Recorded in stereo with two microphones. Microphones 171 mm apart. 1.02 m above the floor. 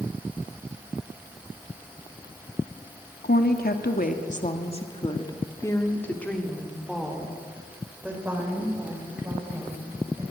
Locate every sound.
3.2 s a woman speaking: 70° left (ahead or behind), 2 m; by 10.2 s 15° right (ahead or behind), 6.5 m